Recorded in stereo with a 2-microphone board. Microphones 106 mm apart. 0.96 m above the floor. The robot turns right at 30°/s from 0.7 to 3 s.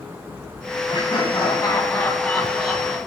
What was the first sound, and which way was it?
Laughter, 130° left.